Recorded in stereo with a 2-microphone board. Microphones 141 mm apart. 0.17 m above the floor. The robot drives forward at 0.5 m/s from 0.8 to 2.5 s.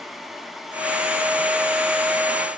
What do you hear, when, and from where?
Only background noise.